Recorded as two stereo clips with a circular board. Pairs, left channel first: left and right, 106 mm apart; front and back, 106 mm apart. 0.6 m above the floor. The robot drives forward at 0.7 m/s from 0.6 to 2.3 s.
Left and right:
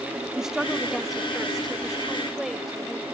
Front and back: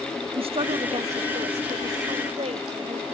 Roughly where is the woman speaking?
Behind.